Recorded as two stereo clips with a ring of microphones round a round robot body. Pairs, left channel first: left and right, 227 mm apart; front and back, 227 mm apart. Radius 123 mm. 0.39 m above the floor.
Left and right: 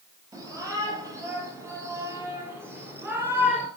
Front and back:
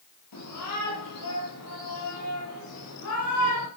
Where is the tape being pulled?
I don't hear tape being pulled.